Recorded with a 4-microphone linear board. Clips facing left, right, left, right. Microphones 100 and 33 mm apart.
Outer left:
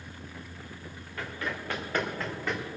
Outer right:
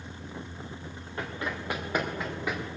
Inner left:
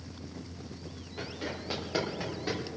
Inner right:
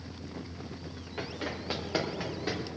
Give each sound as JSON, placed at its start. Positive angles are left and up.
{"t": 1.2, "sound": "running footsteps", "side_deg": -25, "distance_m": 2.5}